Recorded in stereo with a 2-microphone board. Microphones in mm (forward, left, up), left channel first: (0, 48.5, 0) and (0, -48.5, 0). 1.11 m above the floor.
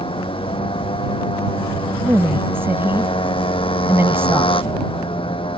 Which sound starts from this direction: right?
A woman speaking, at 2.0 s.